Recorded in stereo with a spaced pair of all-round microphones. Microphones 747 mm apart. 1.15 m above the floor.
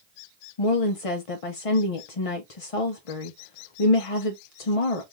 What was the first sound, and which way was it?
A woman speaking, 50° left (ahead or behind).